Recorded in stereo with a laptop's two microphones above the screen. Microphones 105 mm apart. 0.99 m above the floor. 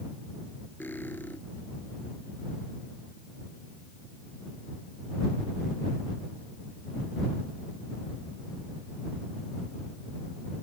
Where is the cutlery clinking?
20° left (ahead or behind).